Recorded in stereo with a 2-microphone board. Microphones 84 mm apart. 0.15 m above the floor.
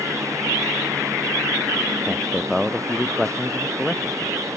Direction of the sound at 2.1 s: Centre (ahead or behind).